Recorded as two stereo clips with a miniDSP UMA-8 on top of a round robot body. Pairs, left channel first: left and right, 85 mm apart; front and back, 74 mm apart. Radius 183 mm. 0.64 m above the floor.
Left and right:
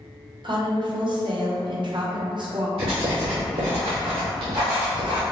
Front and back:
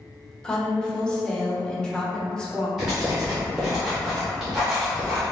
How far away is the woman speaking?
About 0.9 m.